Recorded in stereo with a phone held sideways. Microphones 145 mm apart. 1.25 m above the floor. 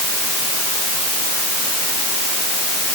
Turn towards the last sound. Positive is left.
No sound to turn to.